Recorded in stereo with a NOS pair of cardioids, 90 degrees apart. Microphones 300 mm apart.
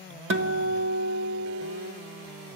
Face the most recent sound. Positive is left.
turn(degrees=-45)